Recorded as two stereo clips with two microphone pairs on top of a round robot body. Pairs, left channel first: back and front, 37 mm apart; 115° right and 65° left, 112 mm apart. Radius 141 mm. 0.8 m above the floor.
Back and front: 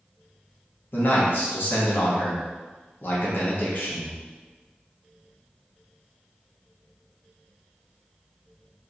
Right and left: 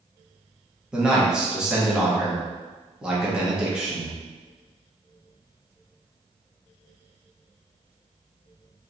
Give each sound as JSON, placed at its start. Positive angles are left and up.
{"t": 0.9, "sound": "a man speaking", "azimuth_deg": 155, "distance_m": 1.3}